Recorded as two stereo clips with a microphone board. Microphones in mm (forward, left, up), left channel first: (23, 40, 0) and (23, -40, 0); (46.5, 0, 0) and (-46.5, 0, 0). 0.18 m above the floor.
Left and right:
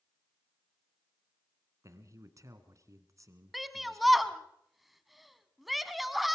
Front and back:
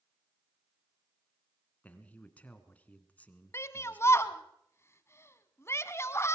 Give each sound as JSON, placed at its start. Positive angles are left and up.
{"t": 1.8, "sound": "a man speaking", "azimuth_deg": -65, "distance_m": 1.8}
{"t": 3.5, "sound": "a shout", "azimuth_deg": 0, "distance_m": 1.1}